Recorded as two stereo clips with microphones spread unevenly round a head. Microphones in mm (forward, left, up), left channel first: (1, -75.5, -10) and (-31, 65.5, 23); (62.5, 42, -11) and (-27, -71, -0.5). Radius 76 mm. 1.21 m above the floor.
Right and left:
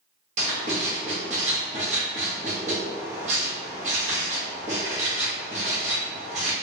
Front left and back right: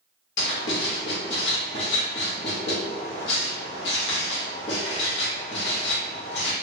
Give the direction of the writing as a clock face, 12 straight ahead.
10 o'clock.